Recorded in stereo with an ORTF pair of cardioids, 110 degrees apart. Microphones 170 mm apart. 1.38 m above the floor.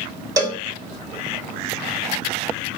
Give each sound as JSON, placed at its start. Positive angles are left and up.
{"t": 0.4, "sound": "a cowbell", "azimuth_deg": -20, "distance_m": 1.1}